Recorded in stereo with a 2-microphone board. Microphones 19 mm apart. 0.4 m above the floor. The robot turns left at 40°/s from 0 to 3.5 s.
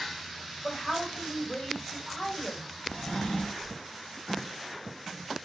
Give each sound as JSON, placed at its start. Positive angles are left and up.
{"t": 0.6, "sound": "a woman speaking", "azimuth_deg": 160, "distance_m": 1.5}
{"t": 2.9, "sound": "a drawer", "side_deg": 85, "distance_m": 0.7}